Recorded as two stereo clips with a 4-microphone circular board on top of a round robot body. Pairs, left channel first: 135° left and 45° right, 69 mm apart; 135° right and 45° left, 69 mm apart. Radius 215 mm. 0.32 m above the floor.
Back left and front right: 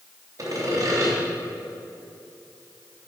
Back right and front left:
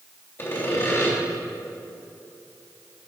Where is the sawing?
85° right, 3 m.